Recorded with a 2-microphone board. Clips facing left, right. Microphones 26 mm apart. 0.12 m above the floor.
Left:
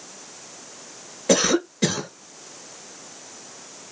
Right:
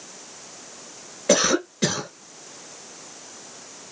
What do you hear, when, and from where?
1.3 s a cough: 10° right (ahead or behind), 1.3 m